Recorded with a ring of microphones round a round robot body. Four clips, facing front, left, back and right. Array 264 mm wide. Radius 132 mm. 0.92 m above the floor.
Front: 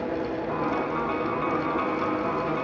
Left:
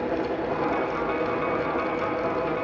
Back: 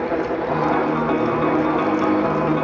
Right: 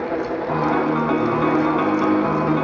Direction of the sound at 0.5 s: 120° right.